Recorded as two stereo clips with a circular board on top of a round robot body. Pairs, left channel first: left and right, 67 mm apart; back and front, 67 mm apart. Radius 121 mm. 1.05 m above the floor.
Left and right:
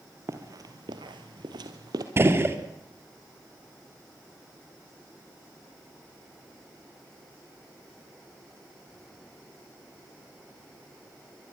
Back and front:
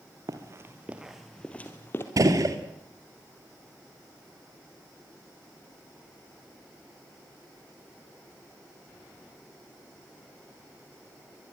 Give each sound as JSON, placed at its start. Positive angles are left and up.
{"t": 0.3, "sound": "running footsteps", "azimuth_deg": -40, "distance_m": 2.0}
{"t": 2.2, "sound": "a gunshot", "azimuth_deg": -35, "distance_m": 2.5}